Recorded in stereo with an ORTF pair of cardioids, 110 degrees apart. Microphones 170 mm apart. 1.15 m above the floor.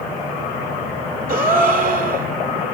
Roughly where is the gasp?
Ahead right.